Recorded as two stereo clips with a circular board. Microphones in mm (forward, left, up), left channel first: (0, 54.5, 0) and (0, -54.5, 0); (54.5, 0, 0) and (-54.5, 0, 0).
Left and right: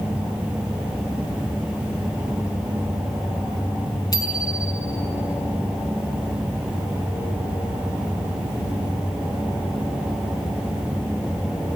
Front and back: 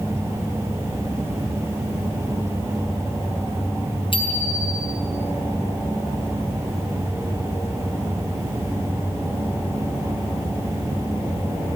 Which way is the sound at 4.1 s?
35° left.